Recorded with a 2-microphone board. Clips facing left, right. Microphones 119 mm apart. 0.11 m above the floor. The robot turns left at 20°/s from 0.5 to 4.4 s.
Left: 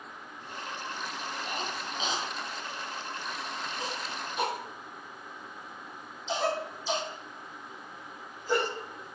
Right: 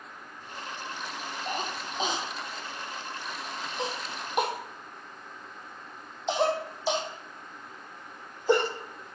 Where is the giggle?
No giggle in this recording.